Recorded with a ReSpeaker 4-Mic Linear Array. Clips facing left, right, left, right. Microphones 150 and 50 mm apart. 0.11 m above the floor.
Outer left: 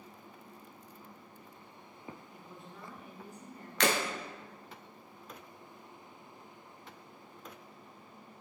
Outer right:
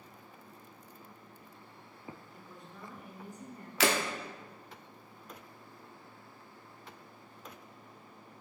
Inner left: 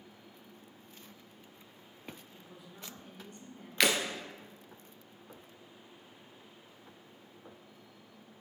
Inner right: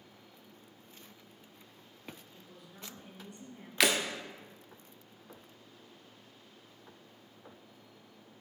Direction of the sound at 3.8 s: 5° right (ahead or behind).